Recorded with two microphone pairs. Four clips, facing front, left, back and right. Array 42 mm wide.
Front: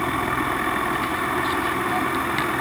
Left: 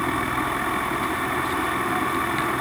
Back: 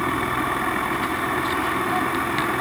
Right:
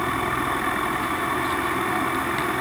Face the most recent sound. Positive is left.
No sound to turn to.